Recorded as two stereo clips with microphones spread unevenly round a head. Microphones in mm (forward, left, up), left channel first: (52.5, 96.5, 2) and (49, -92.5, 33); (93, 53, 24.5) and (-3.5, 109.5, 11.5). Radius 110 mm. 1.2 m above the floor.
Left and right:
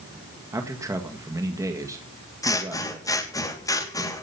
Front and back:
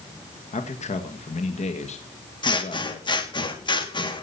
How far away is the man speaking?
About 1.8 m.